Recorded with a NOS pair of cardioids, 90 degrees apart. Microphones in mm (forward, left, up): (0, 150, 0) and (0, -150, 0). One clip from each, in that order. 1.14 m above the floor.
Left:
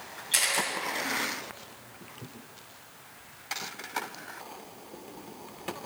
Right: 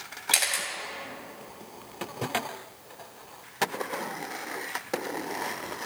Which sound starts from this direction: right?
A camera shutter, at 0.3 s.